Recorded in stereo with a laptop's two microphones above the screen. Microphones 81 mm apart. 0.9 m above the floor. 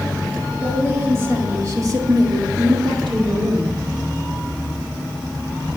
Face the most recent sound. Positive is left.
turn(degrees=-75)  # may be behind; listen again after turning